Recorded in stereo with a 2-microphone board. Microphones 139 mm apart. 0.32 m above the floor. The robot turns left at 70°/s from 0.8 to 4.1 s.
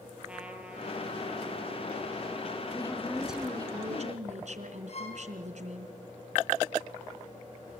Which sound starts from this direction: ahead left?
A woman speaking, at 2.7 s.